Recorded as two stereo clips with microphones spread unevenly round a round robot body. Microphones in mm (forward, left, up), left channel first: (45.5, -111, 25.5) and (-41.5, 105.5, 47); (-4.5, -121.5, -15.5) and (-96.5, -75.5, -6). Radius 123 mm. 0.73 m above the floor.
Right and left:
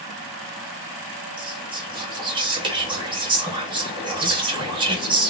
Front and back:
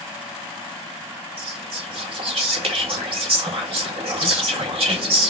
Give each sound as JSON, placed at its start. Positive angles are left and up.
{"t": 1.4, "sound": "whispering", "azimuth_deg": -175, "distance_m": 1.8}